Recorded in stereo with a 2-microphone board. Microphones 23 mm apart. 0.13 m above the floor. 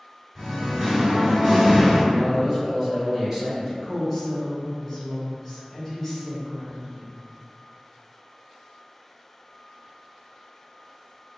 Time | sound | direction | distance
0.3 | singing | 15° right (ahead or behind) | 1.7 m
2.1 | a man speaking | 35° right (ahead or behind) | 1.5 m
3.8 | a woman speaking | 15° left (ahead or behind) | 1.0 m